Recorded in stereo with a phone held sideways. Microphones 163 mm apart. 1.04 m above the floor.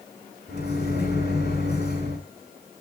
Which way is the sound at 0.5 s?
80° left.